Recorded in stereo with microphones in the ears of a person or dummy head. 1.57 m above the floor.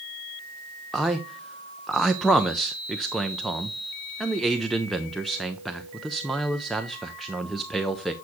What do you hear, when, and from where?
0.9 s a man speaking: 5° left (ahead or behind), 0.6 m